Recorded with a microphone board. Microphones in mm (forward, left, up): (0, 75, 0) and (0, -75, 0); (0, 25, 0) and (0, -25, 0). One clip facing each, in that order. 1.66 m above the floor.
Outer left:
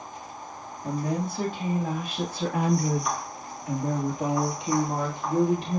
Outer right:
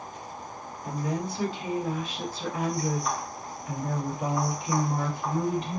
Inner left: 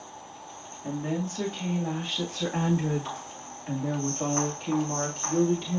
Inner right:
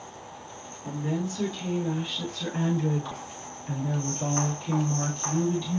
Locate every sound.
0.8 s a woman speaking: 45° left (ahead or behind), 3 m; by 5.8 s 75° left (ahead or behind), 3 m